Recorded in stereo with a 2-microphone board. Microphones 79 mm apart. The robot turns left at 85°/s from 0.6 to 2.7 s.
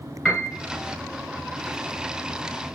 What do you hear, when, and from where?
0.2 s a piano: centre (ahead or behind), 1.3 m